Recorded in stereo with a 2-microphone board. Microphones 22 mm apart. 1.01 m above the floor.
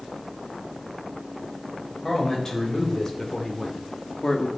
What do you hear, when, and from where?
2.0 s a man speaking: 20° left (ahead or behind), 5 m; by 4.5 s 30° left (ahead or behind), 1.6 m